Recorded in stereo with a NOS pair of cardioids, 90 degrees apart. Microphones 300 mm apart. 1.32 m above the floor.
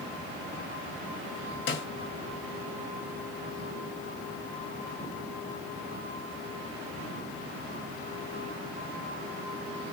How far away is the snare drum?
About 0.8 m.